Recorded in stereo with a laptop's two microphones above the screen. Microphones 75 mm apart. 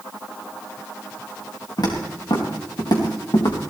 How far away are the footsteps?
About 4.5 m.